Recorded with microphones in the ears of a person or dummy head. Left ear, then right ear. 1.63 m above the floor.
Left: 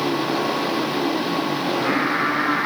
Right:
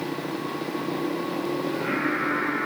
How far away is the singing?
About 6 m.